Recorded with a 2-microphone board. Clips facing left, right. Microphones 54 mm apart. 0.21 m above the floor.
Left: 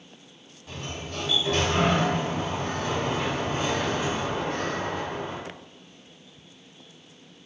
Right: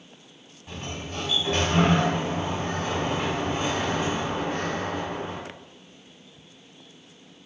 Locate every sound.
0.7 s a sliding door: 30° right (ahead or behind), 1.4 m